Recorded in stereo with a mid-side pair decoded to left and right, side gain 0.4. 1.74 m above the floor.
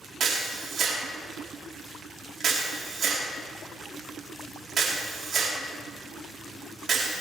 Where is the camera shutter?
50° right, 5 m.